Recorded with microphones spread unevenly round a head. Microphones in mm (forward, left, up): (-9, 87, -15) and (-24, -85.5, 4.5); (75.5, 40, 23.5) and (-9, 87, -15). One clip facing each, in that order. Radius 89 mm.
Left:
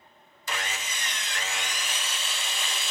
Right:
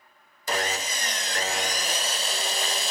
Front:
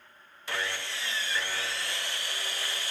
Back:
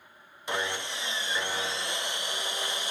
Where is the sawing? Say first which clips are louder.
Right 7 dB, back 3 dB; 120° right, 0.5 m.